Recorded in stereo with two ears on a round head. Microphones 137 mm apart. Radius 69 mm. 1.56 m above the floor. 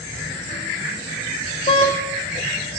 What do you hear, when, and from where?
1.7 s a car horn: 35° left (ahead or behind), 2 m